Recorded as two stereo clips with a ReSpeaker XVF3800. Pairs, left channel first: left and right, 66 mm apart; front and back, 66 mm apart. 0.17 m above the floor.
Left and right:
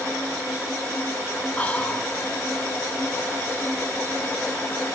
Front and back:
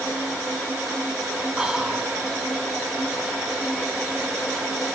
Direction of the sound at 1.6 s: 120° left.